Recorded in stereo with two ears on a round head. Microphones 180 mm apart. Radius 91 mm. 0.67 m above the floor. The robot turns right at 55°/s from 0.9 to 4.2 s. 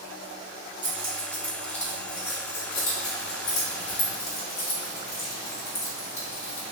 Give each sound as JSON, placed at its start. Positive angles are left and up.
{"t": 0.8, "sound": "keys jangling", "side_deg": -35, "distance_m": 1.3}